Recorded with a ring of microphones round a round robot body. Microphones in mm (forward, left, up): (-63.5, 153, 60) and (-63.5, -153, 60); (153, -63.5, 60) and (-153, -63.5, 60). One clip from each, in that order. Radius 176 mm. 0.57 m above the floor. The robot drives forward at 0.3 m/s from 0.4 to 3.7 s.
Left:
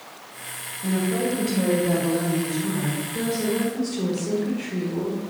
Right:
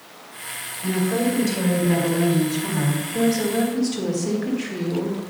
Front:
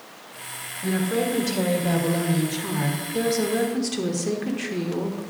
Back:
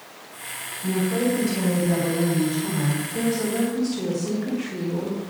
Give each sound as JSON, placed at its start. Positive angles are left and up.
{"t": 0.8, "sound": "a woman speaking", "azimuth_deg": -15, "distance_m": 2.0}